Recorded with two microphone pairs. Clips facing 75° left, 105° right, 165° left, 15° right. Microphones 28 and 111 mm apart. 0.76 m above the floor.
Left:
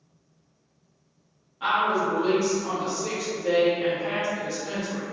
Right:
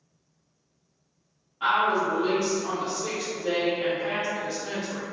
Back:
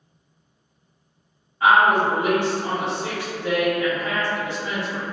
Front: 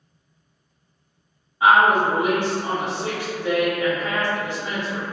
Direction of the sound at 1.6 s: 45° right.